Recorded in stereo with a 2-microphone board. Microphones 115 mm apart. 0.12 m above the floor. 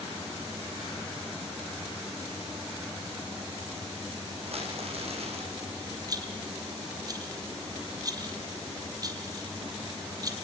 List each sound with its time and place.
4.4 s crumpling: 60° right (ahead or behind), 6 m
6.1 s a rattle: 35° right (ahead or behind), 2.5 m